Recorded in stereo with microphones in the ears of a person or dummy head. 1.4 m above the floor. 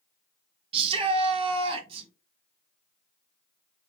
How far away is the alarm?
No alarm in this recording.